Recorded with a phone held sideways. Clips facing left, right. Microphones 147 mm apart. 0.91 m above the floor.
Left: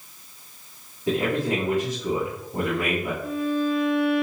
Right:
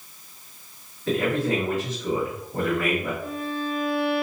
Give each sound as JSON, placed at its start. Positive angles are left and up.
{"t": 1.1, "sound": "a man speaking", "side_deg": 20, "distance_m": 1.9}
{"t": 3.2, "sound": "a violin", "side_deg": 20, "distance_m": 2.0}